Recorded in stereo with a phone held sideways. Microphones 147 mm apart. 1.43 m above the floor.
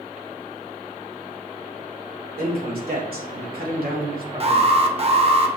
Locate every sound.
2.4 s a man speaking: 75° right (ahead or behind), 3 m
4.4 s an alarm: 40° right (ahead or behind), 1.0 m